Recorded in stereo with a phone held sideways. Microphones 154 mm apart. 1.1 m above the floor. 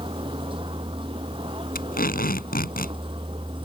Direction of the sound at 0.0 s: 35° right (ahead or behind).